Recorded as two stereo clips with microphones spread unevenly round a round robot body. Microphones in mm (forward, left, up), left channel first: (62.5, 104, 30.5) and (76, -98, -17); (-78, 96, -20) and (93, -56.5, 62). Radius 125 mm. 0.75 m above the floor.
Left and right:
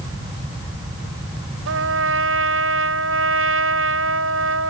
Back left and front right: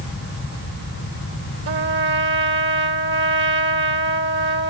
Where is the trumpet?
90° right.